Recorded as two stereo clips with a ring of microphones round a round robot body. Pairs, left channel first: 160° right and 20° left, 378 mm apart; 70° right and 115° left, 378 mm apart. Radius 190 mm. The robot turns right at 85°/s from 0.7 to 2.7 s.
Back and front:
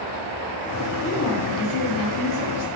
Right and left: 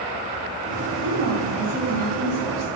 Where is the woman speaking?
135° left, 2 m; by 2.7 s 85° right, 2 m.